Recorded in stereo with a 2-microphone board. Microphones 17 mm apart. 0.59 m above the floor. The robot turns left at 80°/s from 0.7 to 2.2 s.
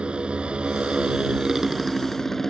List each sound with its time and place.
0.0 s a motorcycle: 80° right; by 2.5 s 160° left